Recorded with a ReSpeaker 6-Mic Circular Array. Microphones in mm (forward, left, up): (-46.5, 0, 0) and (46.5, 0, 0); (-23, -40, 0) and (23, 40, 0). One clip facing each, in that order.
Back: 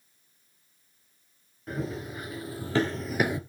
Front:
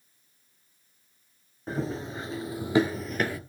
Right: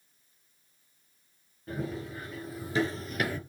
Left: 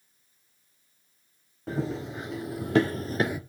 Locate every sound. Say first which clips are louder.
1.7 s running footsteps: front 2 dB, left 5 dB; 60° left, 1.9 m; by 3.4 s 135° left, 0.5 m